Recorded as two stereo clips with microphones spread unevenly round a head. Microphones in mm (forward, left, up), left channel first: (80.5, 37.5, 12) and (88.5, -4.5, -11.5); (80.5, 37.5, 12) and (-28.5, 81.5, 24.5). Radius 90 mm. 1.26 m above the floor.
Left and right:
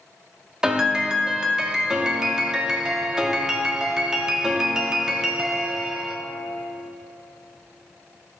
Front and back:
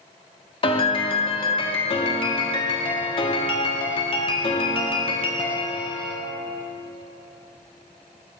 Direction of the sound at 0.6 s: 15° left.